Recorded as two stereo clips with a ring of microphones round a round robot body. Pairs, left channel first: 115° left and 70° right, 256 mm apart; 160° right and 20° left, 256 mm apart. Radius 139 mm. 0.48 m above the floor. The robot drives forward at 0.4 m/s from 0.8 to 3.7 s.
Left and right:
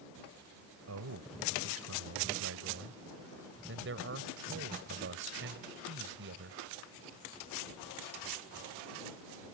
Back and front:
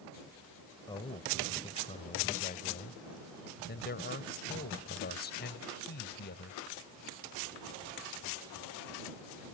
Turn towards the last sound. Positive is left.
turn(degrees=-110)